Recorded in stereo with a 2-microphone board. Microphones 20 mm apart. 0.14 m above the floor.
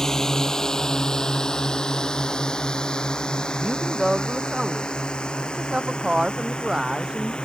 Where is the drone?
30° left (ahead or behind); by 7.5 s 55° left (ahead or behind).